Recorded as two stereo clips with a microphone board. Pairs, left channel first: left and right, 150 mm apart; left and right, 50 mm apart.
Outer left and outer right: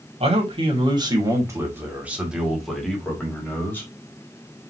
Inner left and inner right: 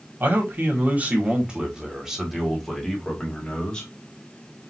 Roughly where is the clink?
No clink in this recording.